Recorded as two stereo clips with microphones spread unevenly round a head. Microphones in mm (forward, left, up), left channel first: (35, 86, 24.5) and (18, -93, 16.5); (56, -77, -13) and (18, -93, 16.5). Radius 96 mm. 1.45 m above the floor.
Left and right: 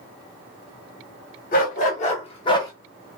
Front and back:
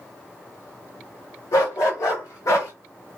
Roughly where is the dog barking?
Ahead left.